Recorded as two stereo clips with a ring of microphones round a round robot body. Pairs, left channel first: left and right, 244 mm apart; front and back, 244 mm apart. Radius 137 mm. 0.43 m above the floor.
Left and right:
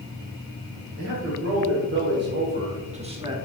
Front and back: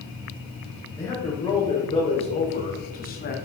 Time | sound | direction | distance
1.0 | a man speaking | 75° right | 2.5 m